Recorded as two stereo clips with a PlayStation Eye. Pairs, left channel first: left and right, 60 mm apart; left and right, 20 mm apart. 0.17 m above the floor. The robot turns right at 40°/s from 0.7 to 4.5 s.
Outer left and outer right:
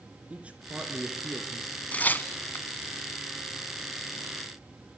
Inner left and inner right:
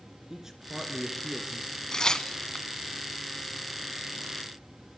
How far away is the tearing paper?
About 1.3 m.